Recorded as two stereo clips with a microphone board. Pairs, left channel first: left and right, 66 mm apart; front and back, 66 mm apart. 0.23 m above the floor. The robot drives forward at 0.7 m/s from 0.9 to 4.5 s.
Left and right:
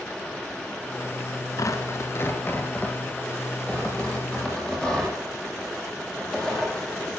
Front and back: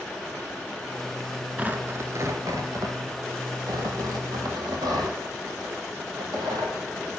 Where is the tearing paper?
110° left, 0.7 m; by 7.2 s 165° left, 2.5 m.